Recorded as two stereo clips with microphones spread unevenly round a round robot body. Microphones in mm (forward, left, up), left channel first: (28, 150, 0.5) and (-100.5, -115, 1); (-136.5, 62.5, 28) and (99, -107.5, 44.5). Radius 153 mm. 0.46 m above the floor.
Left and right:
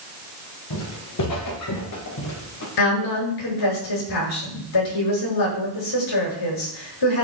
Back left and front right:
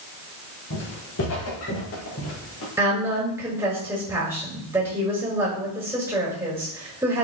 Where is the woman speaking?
45° left, 7 m.